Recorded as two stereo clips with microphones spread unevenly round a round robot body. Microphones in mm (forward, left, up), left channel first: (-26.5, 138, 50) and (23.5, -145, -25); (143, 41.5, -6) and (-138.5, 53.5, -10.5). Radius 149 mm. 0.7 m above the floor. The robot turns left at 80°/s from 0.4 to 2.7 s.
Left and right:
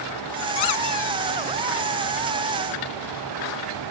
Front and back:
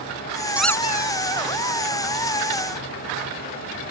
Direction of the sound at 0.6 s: 90° left.